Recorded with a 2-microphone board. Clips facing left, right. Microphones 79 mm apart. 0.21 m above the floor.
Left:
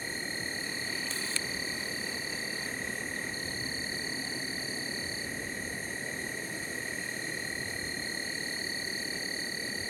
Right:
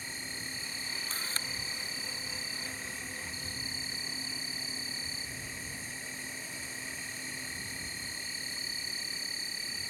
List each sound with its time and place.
0.0 s an insect: 50° left (ahead or behind)
1.1 s a camera shutter: 40° right (ahead or behind)